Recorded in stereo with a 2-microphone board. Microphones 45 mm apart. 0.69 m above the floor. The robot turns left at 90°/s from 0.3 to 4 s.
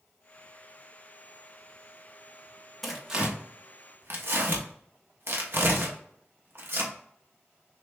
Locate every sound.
2.8 s tearing paper: 5° left (ahead or behind), 0.8 m; by 6.9 s 55° right (ahead or behind), 0.8 m